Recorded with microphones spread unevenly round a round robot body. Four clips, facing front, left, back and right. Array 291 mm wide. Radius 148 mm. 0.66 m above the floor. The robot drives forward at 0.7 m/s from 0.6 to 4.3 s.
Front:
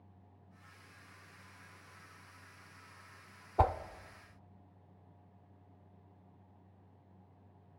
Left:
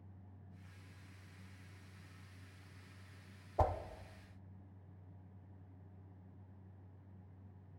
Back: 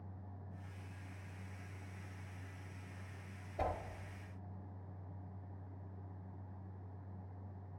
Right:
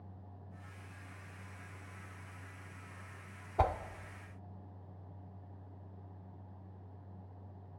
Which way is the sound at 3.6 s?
15° right.